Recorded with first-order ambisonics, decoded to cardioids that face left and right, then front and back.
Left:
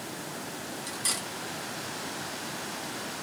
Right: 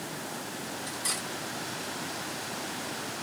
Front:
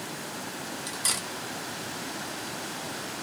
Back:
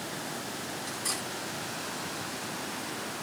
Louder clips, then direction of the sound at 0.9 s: Left 2 dB, front 5 dB; 20° left.